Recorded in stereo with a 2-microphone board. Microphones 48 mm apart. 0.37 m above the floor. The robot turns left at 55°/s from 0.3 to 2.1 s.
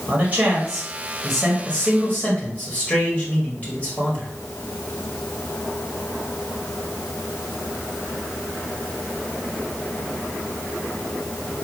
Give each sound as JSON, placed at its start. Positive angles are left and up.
{"t": 0.1, "sound": "a man speaking", "azimuth_deg": -130, "distance_m": 1.8}